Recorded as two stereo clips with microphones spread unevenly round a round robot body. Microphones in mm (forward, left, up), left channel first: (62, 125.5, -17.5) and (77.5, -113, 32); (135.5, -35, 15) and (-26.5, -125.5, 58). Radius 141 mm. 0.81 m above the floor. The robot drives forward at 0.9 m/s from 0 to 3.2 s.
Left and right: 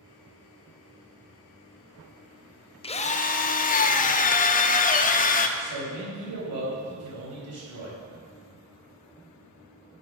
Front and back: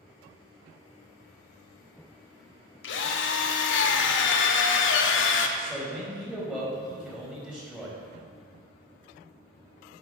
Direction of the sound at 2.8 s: 30° left.